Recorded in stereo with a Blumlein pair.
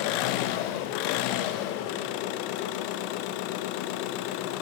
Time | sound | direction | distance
0.0 | an engine running | 45° left | 1.1 m